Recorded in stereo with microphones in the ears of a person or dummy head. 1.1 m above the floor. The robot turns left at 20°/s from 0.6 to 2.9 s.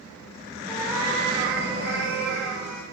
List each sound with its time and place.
0.7 s a cat meowing: 140° right, 0.6 m; by 2.8 s 175° left, 0.6 m